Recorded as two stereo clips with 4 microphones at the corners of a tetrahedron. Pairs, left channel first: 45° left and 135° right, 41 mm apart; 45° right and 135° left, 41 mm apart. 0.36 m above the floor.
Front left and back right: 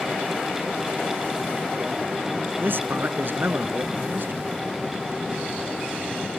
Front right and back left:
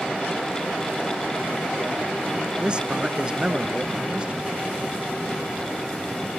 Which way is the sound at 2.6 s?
160° right.